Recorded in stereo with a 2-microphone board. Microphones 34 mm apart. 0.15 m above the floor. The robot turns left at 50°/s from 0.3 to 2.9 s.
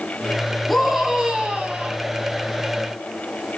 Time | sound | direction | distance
0.7 | a scream | 5° left | 7.5 m